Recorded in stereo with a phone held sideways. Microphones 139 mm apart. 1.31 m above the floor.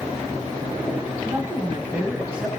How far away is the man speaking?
About 4 m.